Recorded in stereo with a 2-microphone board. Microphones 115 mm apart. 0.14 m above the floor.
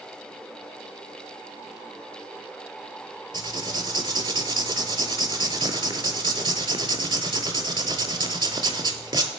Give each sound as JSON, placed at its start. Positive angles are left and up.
{"t": 3.3, "sound": "writing", "side_deg": -45, "distance_m": 0.7}